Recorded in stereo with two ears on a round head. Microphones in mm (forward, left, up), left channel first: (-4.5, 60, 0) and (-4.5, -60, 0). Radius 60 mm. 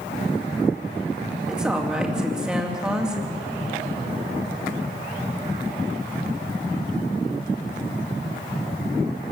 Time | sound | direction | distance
1.5 | a woman speaking | 5° right (ahead or behind) | 3 m